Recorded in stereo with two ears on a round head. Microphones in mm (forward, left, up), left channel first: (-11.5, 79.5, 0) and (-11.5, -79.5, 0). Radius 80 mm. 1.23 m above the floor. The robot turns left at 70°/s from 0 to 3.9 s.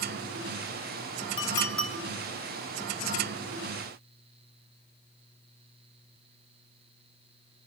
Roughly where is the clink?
Left.